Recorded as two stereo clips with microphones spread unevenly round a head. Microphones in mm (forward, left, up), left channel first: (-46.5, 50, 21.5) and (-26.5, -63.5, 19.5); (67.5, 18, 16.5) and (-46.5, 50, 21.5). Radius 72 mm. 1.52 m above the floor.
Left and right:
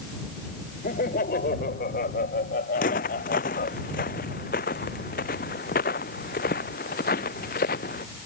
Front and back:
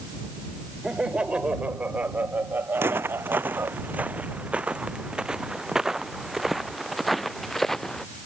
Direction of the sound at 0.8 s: 80° left.